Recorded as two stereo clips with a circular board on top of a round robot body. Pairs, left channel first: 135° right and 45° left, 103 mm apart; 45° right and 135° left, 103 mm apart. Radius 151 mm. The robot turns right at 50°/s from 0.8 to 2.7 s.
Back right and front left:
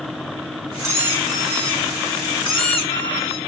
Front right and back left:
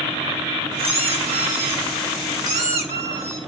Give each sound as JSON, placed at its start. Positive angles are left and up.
{"t": 0.8, "sound": "a squeak", "azimuth_deg": 105, "distance_m": 2.5}